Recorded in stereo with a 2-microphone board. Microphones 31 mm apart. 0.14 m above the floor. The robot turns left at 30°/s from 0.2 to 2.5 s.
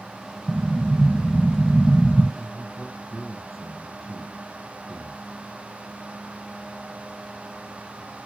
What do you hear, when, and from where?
0.5 s an explosion: 135° right, 2.0 m; by 2.3 s 170° left, 2.0 m
2.4 s a man speaking: centre (ahead or behind), 2 m; by 5.3 s 5° right (ahead or behind), 2 m